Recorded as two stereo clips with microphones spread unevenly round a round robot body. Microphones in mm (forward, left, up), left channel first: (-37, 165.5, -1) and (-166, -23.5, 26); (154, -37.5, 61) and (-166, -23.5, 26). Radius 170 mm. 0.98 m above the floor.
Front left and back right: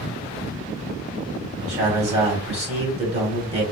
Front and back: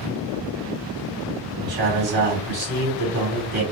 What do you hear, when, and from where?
1.6 s a man speaking: 160° left, 1.9 m